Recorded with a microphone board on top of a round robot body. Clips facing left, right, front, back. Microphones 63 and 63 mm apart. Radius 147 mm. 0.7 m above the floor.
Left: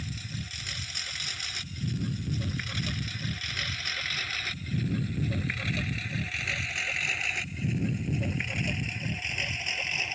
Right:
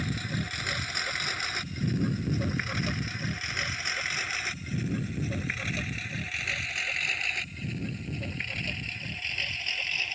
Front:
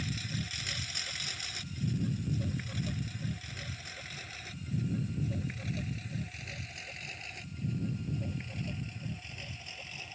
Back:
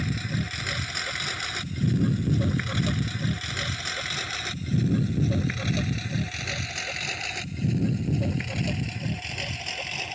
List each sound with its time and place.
0.0 s a lawn mower: 130° right; by 10.2 s 160° left